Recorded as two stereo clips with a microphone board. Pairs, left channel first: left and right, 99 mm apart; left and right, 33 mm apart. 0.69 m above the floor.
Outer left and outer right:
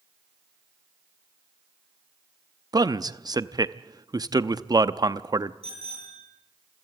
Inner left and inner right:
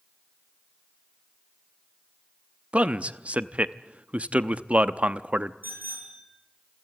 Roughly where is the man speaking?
Right.